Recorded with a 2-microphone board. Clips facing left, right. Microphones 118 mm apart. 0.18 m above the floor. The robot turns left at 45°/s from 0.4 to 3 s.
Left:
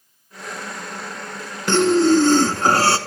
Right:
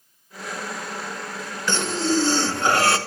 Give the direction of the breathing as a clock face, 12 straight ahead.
9 o'clock.